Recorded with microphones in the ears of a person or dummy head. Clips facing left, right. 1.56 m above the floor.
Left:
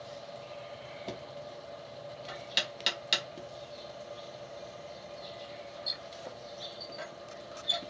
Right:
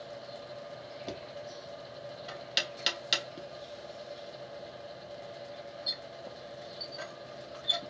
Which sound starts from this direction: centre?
Knocking, at 1.1 s.